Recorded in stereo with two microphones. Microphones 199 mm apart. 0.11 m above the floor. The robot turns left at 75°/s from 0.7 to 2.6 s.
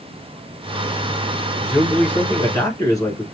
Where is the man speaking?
5° right (ahead or behind), 1.5 m; by 3.2 s 15° left (ahead or behind), 1.5 m.